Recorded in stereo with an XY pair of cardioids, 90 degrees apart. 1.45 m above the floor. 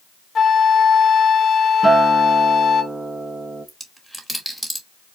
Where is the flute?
55° left, 0.8 m.